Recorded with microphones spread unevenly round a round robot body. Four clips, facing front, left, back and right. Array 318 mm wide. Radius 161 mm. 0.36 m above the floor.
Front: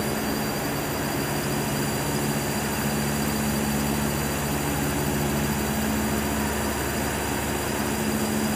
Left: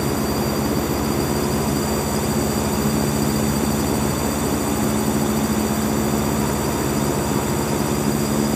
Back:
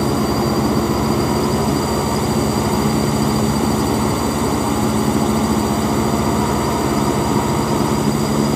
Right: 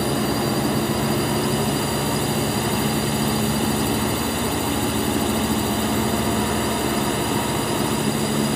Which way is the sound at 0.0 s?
170° right.